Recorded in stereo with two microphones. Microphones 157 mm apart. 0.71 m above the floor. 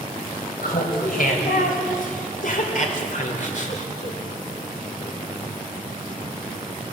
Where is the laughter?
70° left (ahead or behind), 3.5 m; by 4.2 s 45° left (ahead or behind), 1.8 m.